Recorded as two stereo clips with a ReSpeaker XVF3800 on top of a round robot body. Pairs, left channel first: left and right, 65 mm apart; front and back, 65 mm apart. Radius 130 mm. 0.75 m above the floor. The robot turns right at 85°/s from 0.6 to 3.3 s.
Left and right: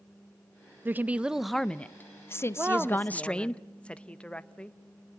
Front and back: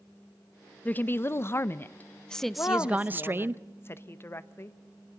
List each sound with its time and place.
0.8 s a woman speaking: 55° right, 0.7 m; by 3.6 s 155° left, 0.7 m
2.6 s a woman speaking: 40° right, 1.1 m; by 4.8 s 25° left, 1.1 m